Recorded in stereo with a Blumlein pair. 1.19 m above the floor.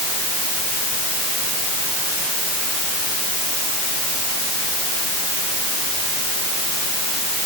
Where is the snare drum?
I don't hear a snare drum.